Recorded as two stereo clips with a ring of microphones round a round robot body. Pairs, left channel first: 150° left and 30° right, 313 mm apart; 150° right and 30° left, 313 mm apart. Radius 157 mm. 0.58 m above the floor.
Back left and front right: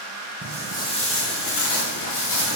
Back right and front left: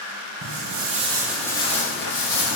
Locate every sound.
0.4 s footsteps: 60° left, 0.9 m; by 2.6 s 175° left, 1.0 m